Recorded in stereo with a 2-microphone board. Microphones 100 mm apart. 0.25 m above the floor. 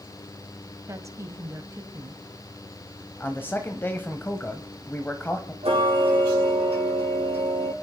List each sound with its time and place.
0.9 s a woman speaking: 30° right (ahead or behind), 1.3 m
3.2 s a man speaking: 20° left (ahead or behind), 1.2 m
5.6 s ticking: 80° right, 5.5 m